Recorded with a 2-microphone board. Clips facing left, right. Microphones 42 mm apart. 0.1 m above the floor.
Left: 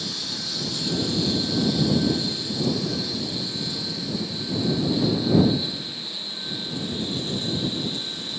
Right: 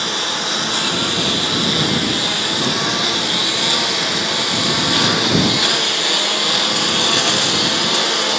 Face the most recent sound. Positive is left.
turn(degrees=-90)